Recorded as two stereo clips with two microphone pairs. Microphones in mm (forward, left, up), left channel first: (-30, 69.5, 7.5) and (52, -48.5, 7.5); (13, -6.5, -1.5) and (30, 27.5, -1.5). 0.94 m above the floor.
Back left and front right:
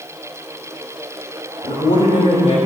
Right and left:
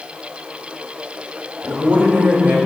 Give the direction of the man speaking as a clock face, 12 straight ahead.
9 o'clock.